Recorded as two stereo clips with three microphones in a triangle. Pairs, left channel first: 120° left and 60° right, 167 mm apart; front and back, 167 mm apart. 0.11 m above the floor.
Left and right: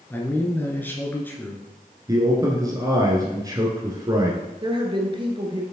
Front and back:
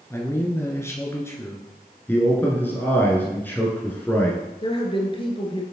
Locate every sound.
0.1 s a man speaking: 55° left, 1.3 m
2.1 s a man speaking: 60° right, 1.2 m
4.6 s a woman speaking: 30° right, 1.4 m